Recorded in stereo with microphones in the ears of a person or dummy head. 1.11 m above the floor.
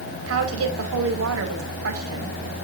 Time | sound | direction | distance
0.3 | a woman speaking | 85° right | 2.5 m